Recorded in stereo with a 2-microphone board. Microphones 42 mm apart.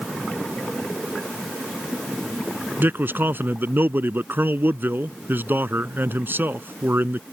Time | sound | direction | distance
2.8 | a man speaking | 55° right (ahead or behind) | ?